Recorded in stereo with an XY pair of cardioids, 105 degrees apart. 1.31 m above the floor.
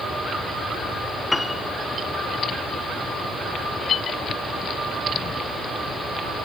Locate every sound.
1.3 s a piano: 15° left, 0.5 m